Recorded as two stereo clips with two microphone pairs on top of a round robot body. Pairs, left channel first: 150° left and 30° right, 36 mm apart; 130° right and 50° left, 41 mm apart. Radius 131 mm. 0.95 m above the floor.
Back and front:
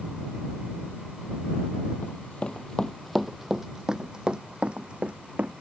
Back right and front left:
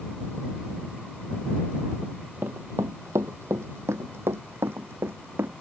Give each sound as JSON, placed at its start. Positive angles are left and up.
{"t": 2.0, "sound": "running footsteps", "azimuth_deg": 100}